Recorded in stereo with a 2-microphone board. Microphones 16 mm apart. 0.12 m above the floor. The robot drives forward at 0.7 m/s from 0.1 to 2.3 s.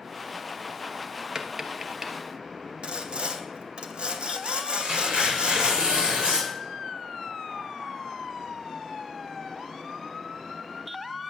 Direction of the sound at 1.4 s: 30° right (ahead or behind).